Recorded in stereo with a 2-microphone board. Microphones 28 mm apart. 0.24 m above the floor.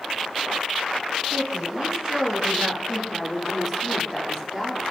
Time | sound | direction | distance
1.3 | a woman speaking | 25° right (ahead or behind) | 2.5 m